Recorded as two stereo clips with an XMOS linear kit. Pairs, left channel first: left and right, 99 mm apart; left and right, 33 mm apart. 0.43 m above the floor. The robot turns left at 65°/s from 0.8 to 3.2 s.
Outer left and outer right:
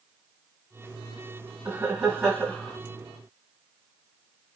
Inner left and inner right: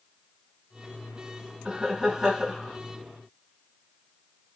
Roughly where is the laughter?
Centre.